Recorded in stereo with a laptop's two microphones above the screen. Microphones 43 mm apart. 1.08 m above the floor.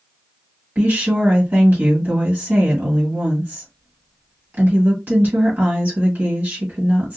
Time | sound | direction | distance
0.8 | a woman speaking | 45° right (ahead or behind) | 1.5 m